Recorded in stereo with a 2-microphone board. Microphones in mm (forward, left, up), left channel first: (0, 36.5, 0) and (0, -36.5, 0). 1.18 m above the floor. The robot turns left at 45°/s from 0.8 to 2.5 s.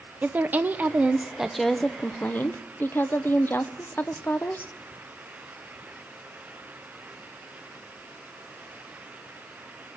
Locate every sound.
0.2 s a woman speaking: 145° right, 0.6 m; by 4.7 s 140° left, 0.6 m